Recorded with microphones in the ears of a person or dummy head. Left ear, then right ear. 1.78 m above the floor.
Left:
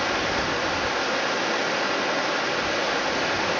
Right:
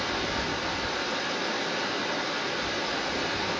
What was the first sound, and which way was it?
Running water, 35° left (ahead or behind).